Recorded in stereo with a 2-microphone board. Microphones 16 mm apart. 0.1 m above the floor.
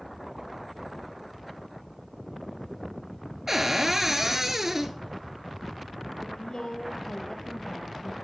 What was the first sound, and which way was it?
A cupboard door, 25° right (ahead or behind).